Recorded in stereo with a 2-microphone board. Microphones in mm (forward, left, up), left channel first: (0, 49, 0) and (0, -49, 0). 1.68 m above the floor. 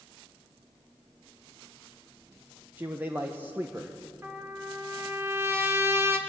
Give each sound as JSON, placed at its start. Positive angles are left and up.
{"t": 2.8, "sound": "a man speaking", "side_deg": -20, "distance_m": 1.2}
{"t": 4.2, "sound": "a trumpet", "side_deg": -25, "distance_m": 1.8}